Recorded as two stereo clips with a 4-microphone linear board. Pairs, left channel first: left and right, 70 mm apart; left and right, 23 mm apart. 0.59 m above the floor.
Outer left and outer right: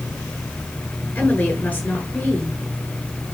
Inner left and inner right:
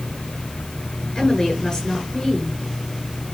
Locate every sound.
1.1 s a woman speaking: 20° left (ahead or behind), 8 m